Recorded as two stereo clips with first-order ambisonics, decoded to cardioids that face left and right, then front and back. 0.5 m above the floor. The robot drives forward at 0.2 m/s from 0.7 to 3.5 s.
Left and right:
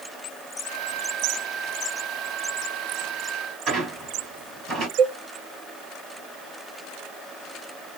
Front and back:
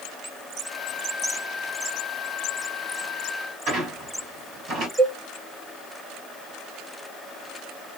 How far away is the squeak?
About 1.5 m.